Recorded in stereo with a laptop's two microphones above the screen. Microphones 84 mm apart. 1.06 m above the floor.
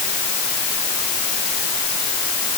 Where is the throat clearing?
No throat clearing in this recording.